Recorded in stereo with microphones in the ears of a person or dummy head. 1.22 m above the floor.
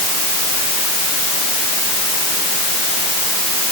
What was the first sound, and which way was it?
Only background noise.